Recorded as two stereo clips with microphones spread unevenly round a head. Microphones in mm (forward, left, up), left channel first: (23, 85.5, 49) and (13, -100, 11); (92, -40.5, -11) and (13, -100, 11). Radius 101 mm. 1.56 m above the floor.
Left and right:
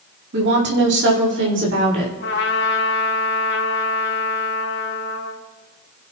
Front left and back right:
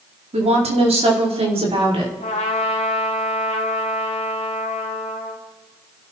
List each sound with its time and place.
0.3 s a woman speaking: 130° right, 4 m; by 2.1 s 120° right, 5.5 m
2.2 s a trumpet: 75° left, 1.6 m